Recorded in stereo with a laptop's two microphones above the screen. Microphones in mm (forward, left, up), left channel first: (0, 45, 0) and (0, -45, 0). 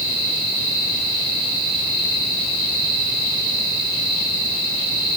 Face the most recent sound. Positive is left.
No sound to turn to.